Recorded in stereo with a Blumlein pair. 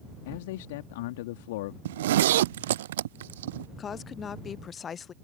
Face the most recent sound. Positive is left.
turn(degrees=25)